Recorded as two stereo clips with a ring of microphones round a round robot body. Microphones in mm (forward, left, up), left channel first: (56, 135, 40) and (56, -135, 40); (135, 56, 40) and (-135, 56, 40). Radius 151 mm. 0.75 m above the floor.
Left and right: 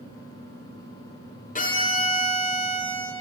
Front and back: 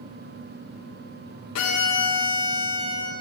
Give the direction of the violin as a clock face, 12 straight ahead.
11 o'clock.